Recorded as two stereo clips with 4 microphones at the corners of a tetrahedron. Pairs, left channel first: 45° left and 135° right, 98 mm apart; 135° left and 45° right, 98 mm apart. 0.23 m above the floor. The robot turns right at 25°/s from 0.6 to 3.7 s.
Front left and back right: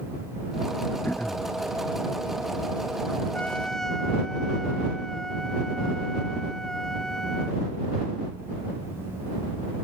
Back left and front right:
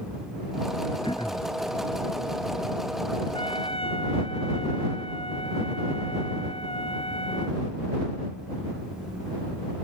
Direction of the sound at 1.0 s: 110° left.